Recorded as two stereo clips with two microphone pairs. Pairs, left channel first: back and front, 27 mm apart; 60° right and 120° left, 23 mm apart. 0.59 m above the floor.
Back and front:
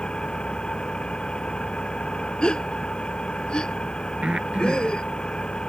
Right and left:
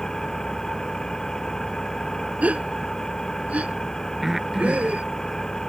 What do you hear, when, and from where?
0.0 s an engine running: 130° right
2.4 s a gasp: 120° left
4.2 s breathing: 40° left